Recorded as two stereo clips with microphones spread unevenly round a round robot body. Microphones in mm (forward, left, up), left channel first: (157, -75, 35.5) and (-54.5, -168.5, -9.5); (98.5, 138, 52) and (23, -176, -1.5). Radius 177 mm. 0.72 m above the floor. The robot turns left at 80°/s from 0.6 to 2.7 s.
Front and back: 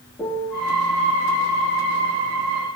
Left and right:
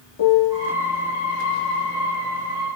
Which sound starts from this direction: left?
A piano, at 0.2 s.